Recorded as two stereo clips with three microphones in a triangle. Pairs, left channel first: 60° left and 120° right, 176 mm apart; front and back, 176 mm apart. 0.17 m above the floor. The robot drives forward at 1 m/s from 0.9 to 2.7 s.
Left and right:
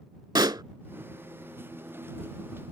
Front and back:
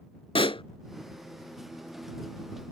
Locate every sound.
0.3 s a pop: 50° right